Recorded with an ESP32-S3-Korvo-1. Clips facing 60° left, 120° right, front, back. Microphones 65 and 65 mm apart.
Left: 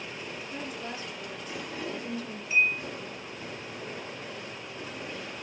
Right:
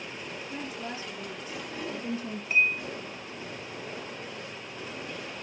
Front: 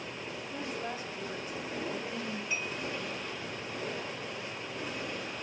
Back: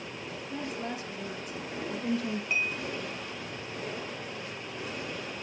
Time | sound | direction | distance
0.5 | a woman speaking | 175° left | 3.5 m
2.5 | dishes clattering | 150° right | 2.5 m